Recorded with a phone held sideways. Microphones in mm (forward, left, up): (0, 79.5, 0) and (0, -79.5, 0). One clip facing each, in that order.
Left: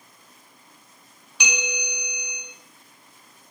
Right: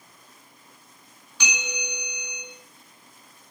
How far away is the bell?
About 4.5 m.